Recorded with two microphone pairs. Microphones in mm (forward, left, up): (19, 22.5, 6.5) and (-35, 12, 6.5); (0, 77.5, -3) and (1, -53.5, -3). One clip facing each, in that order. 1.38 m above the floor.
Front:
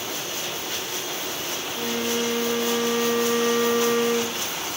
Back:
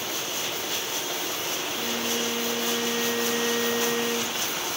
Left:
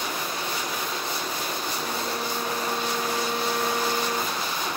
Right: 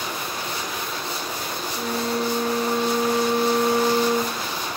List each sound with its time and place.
1.8 s a flute: 75° right, 0.5 m